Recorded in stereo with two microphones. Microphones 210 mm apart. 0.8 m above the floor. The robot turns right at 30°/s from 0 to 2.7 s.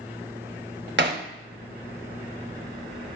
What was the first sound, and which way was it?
Hammering, 60° right (ahead or behind).